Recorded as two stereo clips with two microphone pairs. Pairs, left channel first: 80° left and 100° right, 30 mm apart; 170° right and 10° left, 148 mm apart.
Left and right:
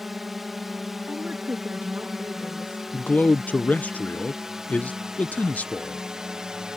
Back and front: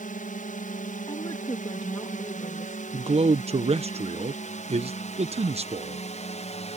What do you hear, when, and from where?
0.0 s a drone: straight behind; by 6.8 s 160° right
1.1 s a woman speaking: 115° right
2.9 s a man speaking: 55° left